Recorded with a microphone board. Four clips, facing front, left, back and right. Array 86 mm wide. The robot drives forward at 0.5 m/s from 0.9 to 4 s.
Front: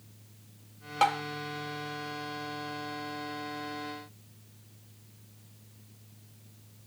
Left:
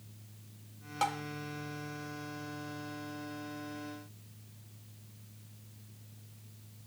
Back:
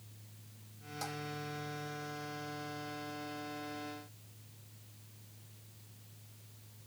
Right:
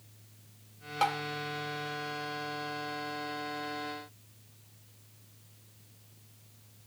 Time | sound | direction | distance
1.0 | tapping | 15° right | ?